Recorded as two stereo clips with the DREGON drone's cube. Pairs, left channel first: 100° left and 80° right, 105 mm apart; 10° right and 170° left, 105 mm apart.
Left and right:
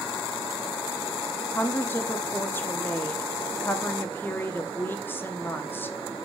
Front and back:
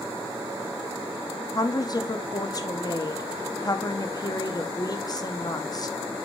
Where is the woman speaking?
35° left, 0.8 m.